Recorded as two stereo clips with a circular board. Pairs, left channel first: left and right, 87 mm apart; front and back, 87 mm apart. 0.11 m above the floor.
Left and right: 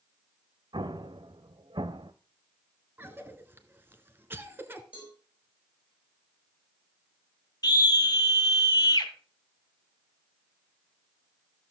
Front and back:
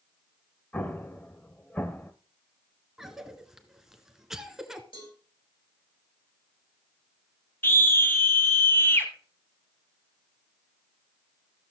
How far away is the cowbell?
About 6 m.